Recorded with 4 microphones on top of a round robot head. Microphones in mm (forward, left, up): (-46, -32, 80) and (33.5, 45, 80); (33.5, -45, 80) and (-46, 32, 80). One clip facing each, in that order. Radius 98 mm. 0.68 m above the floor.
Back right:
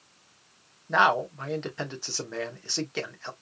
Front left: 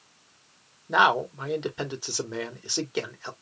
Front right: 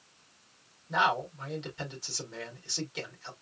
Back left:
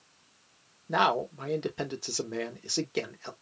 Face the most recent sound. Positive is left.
turn(degrees=120)